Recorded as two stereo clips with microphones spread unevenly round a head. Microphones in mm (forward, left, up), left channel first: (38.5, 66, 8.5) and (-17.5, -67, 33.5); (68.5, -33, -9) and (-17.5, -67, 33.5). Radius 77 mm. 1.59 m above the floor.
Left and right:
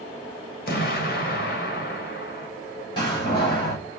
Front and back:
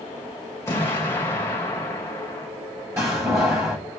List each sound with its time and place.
0.7 s an explosion: 100° left, 3.5 m
3.0 s a door slam: 130° left, 7 m